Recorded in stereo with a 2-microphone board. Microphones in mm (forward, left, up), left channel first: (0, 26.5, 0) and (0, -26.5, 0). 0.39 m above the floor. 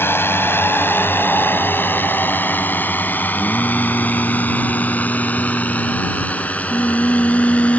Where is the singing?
50° left (ahead or behind).